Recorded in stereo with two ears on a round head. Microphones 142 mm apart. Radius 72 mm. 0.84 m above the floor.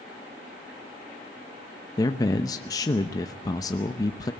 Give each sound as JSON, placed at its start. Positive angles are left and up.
{"t": 2.0, "sound": "a man speaking", "side_deg": 25, "distance_m": 0.8}